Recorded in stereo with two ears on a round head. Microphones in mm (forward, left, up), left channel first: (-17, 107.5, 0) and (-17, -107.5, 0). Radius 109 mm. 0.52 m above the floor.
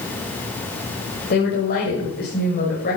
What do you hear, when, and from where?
1.3 s a woman speaking: 40° left (ahead or behind), 2.5 m